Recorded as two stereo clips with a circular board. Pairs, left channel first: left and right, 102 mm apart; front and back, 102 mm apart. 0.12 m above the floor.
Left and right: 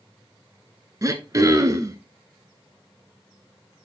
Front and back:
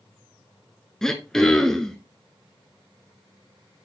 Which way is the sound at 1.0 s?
80° right.